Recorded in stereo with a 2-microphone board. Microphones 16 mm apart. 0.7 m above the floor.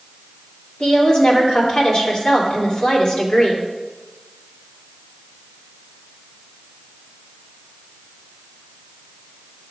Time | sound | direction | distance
0.8 | a woman speaking | 60° left (ahead or behind) | 2.5 m